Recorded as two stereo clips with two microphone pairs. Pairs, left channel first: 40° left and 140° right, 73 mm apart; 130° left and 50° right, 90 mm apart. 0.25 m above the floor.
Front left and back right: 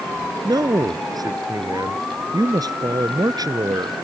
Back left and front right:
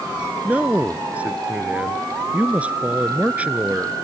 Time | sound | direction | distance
0.4 | a man speaking | 125° right | ?